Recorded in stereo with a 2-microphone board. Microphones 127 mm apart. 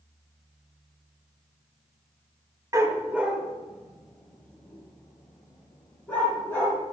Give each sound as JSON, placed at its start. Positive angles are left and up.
{"t": 2.7, "sound": "a dog barking", "side_deg": -25, "distance_m": 1.0}